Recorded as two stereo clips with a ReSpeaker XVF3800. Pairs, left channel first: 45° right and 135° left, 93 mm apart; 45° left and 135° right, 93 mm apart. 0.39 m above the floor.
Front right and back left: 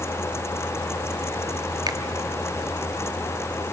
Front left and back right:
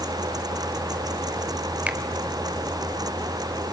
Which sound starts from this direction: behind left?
A finger snap, at 1.9 s.